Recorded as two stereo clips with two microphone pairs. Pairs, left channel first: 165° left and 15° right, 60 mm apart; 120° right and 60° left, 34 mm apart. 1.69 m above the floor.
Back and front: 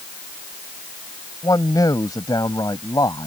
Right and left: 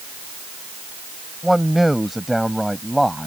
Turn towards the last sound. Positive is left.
turn(degrees=150)